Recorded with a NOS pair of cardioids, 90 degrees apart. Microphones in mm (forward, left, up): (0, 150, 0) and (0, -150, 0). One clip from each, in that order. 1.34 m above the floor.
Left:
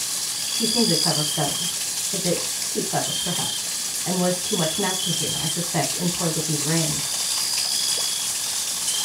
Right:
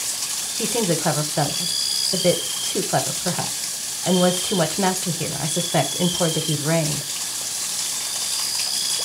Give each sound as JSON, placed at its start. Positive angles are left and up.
{"t": 0.6, "sound": "a woman speaking", "azimuth_deg": -45, "distance_m": 0.8}